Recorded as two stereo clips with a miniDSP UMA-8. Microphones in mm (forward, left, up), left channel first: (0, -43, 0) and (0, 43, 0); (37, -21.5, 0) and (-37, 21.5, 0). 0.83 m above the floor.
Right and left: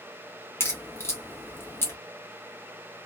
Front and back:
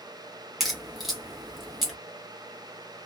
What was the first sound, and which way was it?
A crack, 125° right.